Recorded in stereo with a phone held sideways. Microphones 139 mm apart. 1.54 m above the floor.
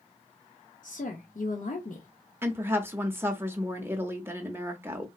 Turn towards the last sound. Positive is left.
turn(degrees=-15)  # may be behind; listen again after turning